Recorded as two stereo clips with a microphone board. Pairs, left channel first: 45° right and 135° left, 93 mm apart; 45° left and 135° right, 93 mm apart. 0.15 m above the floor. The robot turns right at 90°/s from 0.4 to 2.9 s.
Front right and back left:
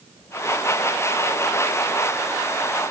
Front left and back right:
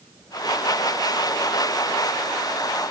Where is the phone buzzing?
I don't hear a phone buzzing.